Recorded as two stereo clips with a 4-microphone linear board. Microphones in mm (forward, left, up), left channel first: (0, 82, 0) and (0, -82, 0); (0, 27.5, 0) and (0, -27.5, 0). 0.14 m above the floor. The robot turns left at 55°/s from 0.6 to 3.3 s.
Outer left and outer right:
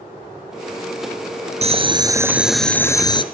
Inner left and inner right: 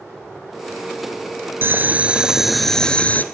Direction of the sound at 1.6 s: 130° right.